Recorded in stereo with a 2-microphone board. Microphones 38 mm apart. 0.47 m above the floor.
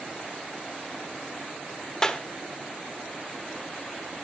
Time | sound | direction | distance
2.0 | a clap | 20° left (ahead or behind) | 1.2 m